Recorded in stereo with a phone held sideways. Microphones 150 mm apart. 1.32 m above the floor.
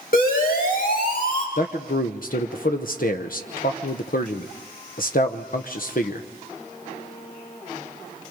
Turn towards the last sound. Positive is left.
turn(degrees=70)  # may be behind; listen again after turning